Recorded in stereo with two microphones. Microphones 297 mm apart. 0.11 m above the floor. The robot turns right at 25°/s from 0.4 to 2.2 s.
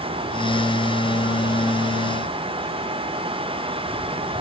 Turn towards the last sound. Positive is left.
No sound to turn to.